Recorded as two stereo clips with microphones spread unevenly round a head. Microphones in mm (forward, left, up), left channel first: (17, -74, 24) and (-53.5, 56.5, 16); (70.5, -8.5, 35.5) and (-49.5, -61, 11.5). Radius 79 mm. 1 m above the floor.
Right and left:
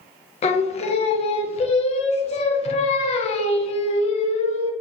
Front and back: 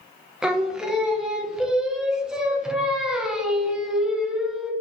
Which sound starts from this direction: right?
Singing, at 0.4 s.